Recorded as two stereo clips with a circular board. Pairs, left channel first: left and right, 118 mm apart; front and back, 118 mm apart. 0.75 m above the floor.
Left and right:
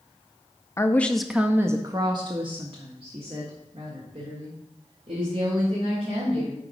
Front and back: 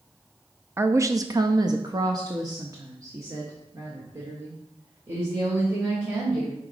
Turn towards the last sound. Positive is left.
turn(degrees=-115)